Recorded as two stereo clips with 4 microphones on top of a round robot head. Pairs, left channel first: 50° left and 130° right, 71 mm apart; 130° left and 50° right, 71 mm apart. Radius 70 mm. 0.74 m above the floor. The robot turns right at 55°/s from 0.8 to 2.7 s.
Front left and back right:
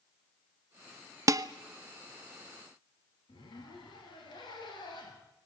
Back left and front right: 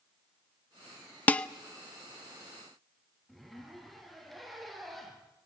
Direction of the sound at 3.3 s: 40° left.